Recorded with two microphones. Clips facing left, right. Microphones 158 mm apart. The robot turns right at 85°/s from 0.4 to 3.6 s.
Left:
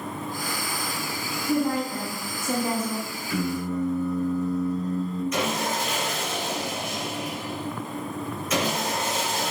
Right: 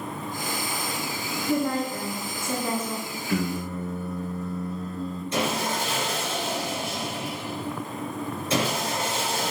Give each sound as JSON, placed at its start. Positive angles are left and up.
{"t": 1.5, "sound": "a woman speaking", "side_deg": 10, "distance_m": 1.5}
{"t": 3.3, "sound": "singing", "side_deg": -55, "distance_m": 3.0}
{"t": 5.3, "sound": "sawing", "side_deg": -30, "distance_m": 2.5}